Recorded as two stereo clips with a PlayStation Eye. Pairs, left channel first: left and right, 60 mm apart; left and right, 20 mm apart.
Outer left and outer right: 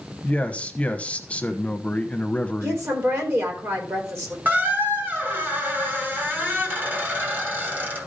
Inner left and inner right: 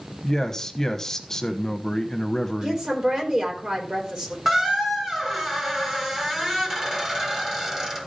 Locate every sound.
0.2 s a man speaking: 20° left (ahead or behind), 0.9 m
2.6 s a woman speaking: 45° right (ahead or behind), 4 m
4.5 s a squeak: 30° right (ahead or behind), 1.9 m